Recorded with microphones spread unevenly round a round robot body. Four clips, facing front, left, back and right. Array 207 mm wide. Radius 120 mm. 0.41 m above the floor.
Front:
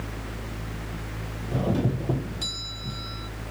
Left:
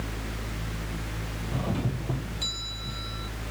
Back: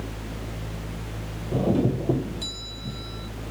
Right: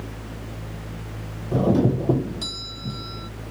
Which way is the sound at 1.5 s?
110° right.